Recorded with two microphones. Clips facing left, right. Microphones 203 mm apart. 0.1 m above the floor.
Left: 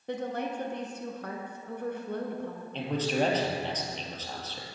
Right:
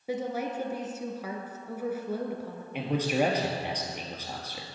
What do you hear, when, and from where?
0.1 s a woman speaking: 5° right (ahead or behind), 1.1 m
2.7 s a man speaking: 10° right (ahead or behind), 1.7 m